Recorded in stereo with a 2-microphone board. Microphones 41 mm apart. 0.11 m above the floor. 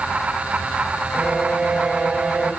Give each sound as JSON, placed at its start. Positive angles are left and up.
{"t": 1.1, "sound": "a violin", "side_deg": -25, "distance_m": 1.6}